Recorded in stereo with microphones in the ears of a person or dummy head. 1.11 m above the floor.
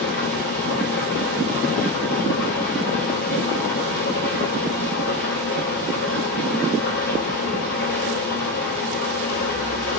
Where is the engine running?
55° left (ahead or behind), 2.5 m.